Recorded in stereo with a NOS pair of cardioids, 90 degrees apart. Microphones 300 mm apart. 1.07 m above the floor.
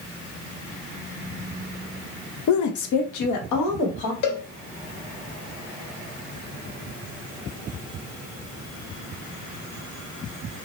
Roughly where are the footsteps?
No footsteps in this recording.